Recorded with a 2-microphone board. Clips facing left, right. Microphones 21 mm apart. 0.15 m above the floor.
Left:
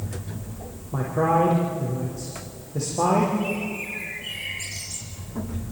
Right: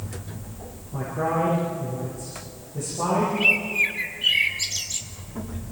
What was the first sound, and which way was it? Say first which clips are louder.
A man speaking: left 4 dB; 65° left (ahead or behind).